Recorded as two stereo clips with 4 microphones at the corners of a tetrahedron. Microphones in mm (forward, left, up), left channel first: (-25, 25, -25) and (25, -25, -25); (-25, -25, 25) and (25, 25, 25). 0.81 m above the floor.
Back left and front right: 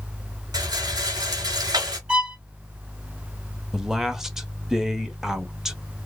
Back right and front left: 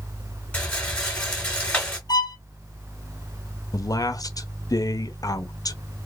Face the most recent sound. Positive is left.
turn(degrees=-125)